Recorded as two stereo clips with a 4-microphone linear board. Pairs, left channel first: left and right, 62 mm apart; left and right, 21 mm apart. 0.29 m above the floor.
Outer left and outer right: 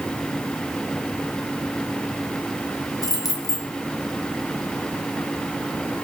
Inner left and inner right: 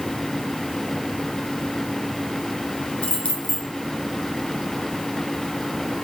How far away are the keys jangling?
About 2.5 m.